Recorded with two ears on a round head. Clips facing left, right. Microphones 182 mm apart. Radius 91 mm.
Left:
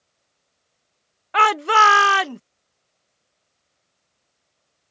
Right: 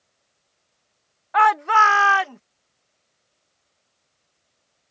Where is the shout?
40° left (ahead or behind); by 2.4 s 50° left (ahead or behind).